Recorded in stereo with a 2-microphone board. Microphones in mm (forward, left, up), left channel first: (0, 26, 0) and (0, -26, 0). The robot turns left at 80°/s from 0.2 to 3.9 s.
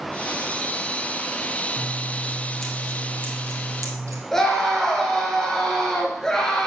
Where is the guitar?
I don't hear a guitar.